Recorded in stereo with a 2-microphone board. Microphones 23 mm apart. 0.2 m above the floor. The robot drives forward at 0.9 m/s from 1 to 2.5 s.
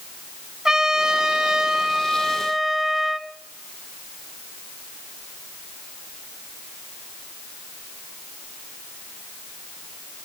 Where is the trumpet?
25° right (ahead or behind), 0.6 m; by 3.3 s 15° right (ahead or behind), 1.1 m.